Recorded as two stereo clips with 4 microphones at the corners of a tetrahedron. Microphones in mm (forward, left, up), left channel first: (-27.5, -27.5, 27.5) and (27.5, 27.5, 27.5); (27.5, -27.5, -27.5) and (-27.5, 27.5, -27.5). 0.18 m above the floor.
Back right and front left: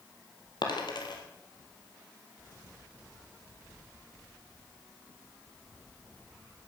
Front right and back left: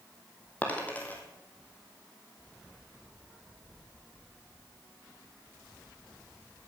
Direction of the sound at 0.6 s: 115° right.